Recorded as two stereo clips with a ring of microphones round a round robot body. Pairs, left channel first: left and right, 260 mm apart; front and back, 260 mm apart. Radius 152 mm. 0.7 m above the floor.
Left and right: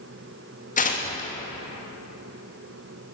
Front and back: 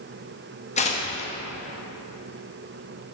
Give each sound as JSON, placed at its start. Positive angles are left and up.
{"t": 0.8, "sound": "tearing paper", "azimuth_deg": 50, "distance_m": 1.3}